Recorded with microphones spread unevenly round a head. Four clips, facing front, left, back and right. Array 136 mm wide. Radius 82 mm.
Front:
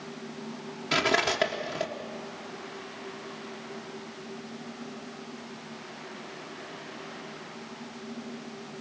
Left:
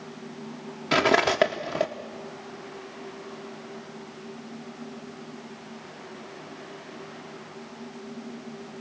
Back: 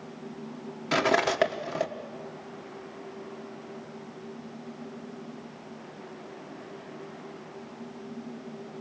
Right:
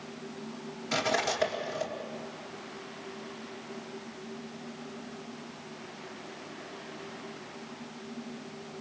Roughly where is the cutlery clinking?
Left.